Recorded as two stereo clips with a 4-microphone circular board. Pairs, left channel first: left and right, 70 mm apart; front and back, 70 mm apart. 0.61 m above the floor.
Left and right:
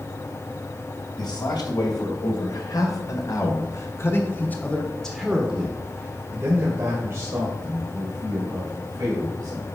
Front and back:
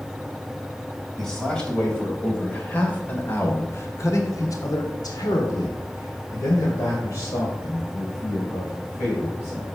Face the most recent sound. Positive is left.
turn(degrees=-55)